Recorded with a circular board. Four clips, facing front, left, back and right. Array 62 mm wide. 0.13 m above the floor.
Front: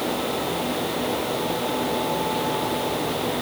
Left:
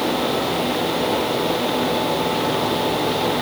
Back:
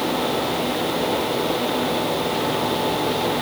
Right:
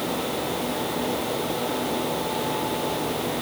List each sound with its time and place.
Only background noise.